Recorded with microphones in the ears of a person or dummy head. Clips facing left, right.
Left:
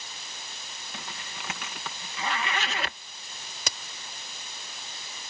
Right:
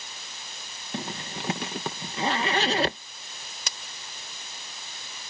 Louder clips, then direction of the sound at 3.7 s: Left 5 dB; 60° left (ahead or behind).